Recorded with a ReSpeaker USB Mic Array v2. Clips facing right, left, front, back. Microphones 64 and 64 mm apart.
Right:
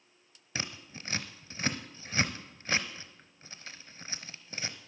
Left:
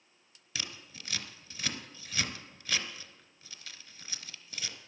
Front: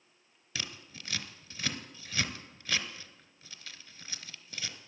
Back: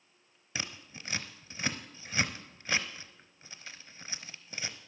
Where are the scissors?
125° right, 0.8 m.